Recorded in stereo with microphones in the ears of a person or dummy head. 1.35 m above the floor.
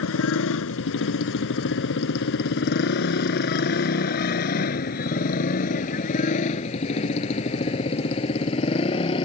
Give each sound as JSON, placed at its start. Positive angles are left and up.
{"t": 0.0, "sound": "a motorcycle", "side_deg": 80}